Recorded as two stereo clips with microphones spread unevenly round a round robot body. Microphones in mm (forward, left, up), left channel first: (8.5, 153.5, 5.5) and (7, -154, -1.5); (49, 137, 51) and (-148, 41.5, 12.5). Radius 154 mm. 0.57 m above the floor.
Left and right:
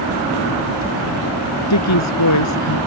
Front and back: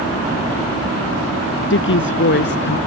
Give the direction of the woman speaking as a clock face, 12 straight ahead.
10 o'clock.